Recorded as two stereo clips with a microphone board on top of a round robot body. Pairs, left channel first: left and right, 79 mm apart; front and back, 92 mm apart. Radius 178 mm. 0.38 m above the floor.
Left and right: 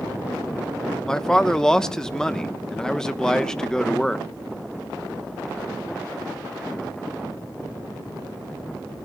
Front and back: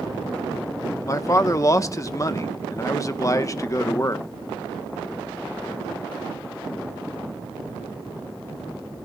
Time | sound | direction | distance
1.1 | a man speaking | 15° left | 1.2 m